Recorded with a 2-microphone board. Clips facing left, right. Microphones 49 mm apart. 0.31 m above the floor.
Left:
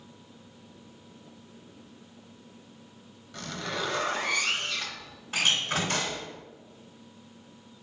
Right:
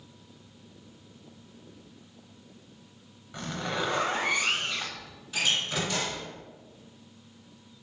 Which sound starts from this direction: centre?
A zipper, at 3.3 s.